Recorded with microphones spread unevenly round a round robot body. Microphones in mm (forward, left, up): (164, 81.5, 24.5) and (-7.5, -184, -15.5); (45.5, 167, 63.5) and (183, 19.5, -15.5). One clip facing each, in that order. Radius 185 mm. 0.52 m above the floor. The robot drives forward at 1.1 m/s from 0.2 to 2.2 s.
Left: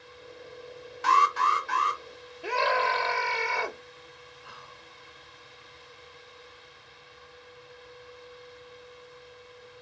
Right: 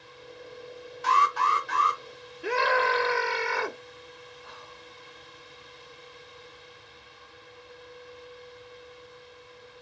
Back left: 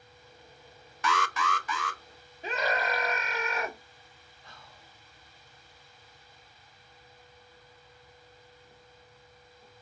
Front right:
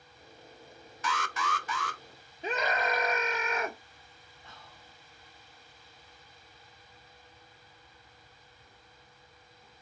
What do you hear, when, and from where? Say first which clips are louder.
1.0 s an alarm: left 1 dB, back left 4 dB; 90° left, 0.6 m; by 2.0 s 155° left, 1.2 m
2.4 s a scream: right 3 dB, even; 75° right, 1.1 m
4.4 s whispering: right 3 dB, even; 170° right, 1.6 m